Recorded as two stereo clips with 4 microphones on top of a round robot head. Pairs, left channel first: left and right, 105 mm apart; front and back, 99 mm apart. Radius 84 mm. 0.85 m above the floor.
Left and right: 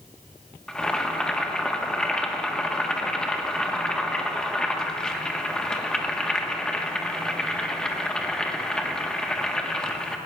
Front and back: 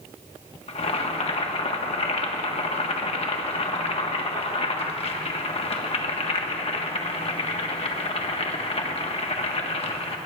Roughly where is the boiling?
Ahead.